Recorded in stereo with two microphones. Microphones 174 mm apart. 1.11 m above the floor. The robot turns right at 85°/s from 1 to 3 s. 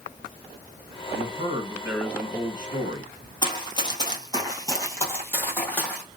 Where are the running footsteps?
25° left (ahead or behind), 1.2 m; by 6.1 s 10° left (ahead or behind), 1.9 m.